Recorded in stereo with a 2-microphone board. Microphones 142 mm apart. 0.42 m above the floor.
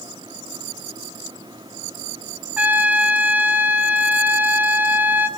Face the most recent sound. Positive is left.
turn(degrees=-10)  # may be behind; listen again after turning